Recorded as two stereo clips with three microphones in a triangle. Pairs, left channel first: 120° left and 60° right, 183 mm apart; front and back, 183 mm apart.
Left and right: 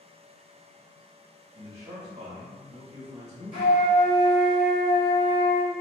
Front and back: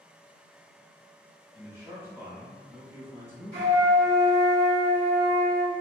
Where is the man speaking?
105° right, 1.3 m.